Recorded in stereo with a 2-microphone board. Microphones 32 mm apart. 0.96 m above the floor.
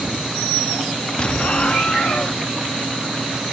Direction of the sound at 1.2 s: 40° left (ahead or behind).